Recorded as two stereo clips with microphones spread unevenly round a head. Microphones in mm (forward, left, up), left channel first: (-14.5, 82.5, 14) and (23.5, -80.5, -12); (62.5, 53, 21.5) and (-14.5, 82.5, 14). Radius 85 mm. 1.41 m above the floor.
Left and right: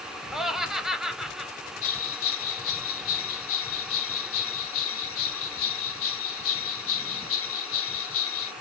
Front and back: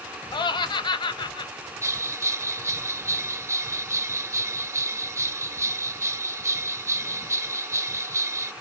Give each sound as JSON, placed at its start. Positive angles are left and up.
{"t": 0.3, "sound": "laughter", "azimuth_deg": 5, "distance_m": 0.6}
{"t": 1.8, "sound": "a bell", "azimuth_deg": 105, "distance_m": 0.6}